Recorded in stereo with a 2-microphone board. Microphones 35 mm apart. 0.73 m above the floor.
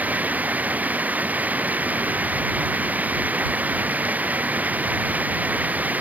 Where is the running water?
45° right (ahead or behind).